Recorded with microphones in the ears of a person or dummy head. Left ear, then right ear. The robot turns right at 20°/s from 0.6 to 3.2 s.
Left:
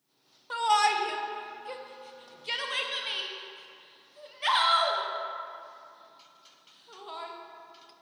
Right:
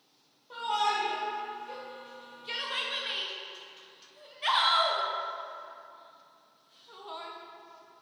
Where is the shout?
60° left (ahead or behind), 0.6 m; by 7.3 s 10° left (ahead or behind), 0.6 m.